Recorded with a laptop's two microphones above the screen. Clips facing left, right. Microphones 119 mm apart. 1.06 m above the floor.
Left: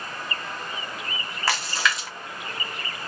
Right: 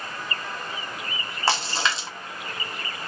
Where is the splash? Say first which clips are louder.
Right 1 dB; 30° right (ahead or behind), 0.6 m.